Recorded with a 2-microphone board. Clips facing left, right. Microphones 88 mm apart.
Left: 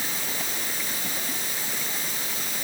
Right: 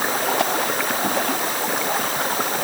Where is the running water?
70° right (ahead or behind).